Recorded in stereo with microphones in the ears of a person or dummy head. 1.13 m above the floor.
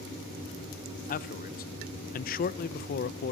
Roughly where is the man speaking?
Left.